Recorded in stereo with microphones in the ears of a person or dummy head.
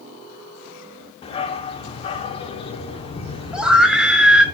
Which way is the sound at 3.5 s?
Centre (ahead or behind).